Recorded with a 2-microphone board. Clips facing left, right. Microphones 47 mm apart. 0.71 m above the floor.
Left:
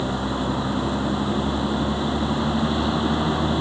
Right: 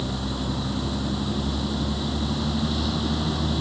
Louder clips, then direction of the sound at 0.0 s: Left 5 dB; 30° left (ahead or behind).